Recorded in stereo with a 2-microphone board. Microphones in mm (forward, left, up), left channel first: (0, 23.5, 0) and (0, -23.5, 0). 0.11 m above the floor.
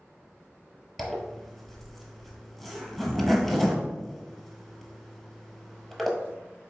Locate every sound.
1.0 s a zipper: centre (ahead or behind), 0.8 m